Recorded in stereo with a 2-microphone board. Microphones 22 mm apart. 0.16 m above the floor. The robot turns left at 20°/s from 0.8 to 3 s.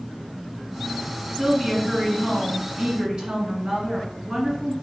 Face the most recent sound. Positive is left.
turn(degrees=-65)